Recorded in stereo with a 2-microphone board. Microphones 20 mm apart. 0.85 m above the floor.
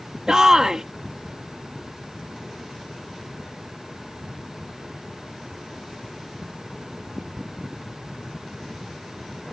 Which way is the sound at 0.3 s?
40° right (ahead or behind).